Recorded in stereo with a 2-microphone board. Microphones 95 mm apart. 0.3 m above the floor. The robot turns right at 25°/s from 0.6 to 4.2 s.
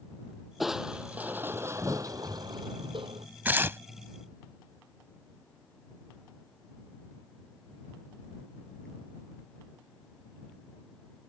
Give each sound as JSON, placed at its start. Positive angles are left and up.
{"t": 0.6, "sound": "crushing", "azimuth_deg": 180}
{"t": 3.5, "sound": "tearing paper", "side_deg": -20}